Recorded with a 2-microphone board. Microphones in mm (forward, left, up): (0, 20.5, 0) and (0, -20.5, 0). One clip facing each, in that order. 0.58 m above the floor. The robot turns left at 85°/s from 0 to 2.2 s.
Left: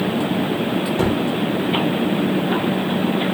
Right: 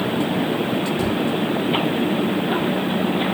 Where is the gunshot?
60° left (ahead or behind); by 1.2 s 40° left (ahead or behind).